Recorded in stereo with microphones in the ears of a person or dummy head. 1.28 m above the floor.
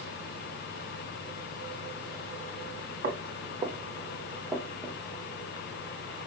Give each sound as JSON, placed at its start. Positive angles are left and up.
{"t": 3.0, "sound": "footsteps", "side_deg": -45, "distance_m": 1.8}